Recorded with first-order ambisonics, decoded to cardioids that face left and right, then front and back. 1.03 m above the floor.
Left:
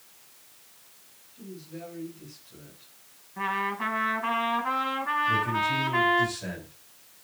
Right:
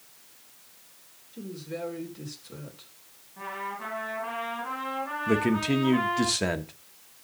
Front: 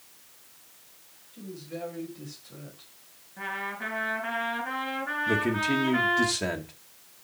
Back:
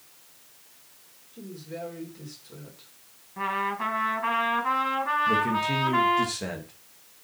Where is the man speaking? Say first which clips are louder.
Right 3 dB, back 2 dB; 75° right, 1.3 m.